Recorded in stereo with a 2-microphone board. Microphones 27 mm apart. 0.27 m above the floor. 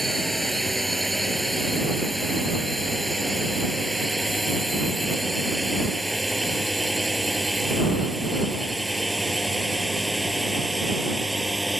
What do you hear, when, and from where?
0.0 s a drone: 5° left (ahead or behind); by 11.8 s 5° right (ahead or behind)